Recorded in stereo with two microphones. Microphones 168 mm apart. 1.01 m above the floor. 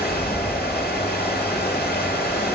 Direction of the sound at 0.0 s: 75° left (ahead or behind).